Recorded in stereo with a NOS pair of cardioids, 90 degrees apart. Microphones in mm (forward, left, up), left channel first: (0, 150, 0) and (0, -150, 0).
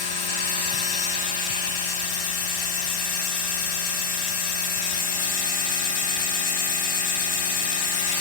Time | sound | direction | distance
0.0 | a machine running | 65° left | 3 m